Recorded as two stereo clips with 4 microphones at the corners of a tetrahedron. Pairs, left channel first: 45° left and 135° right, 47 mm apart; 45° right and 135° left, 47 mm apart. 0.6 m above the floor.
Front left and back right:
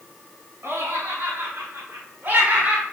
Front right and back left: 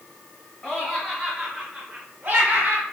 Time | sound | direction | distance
0.6 | laughter | 115° right | 2.5 m